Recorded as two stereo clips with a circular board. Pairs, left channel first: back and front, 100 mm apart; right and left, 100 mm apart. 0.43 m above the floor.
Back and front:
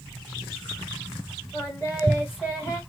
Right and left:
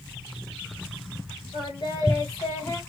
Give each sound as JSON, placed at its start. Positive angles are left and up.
{"t": 1.5, "sound": "singing", "azimuth_deg": -120, "distance_m": 2.5}